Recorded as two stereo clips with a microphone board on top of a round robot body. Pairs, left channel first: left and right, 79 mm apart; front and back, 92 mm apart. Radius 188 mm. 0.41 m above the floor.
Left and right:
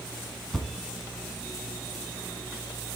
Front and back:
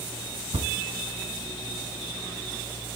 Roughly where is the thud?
Behind.